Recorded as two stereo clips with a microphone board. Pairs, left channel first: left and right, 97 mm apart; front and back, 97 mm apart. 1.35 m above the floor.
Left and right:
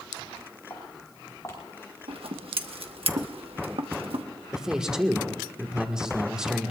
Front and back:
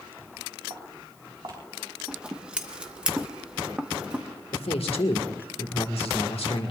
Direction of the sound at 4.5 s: 5° right.